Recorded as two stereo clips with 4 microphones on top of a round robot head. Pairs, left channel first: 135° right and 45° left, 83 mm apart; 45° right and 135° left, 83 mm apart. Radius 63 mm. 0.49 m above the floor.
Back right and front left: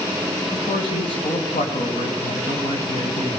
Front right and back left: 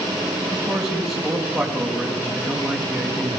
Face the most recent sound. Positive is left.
turn(degrees=-130)